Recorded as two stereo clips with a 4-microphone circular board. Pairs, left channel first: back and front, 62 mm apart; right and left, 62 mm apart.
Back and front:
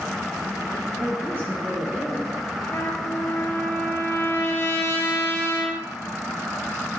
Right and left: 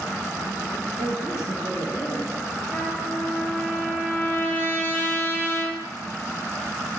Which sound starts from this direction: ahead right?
A woman speaking, at 1.0 s.